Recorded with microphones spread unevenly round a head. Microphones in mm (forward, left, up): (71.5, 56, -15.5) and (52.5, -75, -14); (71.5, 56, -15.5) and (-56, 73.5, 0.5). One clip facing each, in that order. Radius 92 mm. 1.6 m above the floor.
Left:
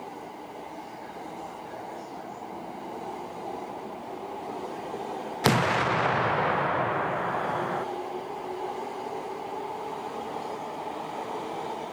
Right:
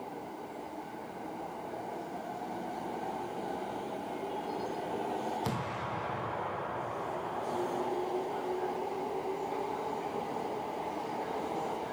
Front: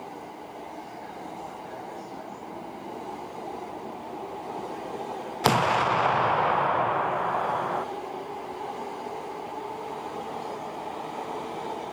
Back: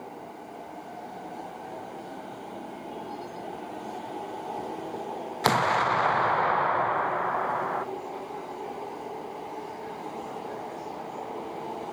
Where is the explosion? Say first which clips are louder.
Left 12 dB, front 1 dB; 70° left, 0.6 m.